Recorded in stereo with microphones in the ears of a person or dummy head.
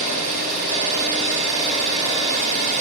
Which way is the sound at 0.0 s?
35° right (ahead or behind).